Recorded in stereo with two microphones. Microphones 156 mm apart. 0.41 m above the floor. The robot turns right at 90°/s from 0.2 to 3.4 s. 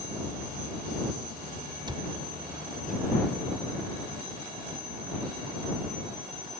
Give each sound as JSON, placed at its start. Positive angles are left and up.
{"t": 1.9, "sound": "a cupboard door", "side_deg": -25}